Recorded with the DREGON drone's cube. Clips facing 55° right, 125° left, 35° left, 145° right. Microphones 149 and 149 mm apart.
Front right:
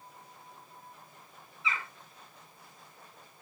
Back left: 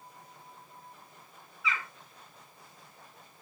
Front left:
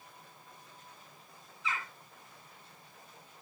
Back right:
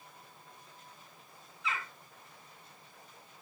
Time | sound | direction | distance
1.6 | a bird | 120° right | 4.5 m